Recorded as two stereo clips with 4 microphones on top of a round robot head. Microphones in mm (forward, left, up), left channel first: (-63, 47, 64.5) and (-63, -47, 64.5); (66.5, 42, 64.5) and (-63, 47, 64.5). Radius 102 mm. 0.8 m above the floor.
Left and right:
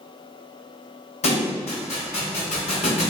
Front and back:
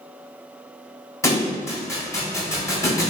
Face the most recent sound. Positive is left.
turn(degrees=65)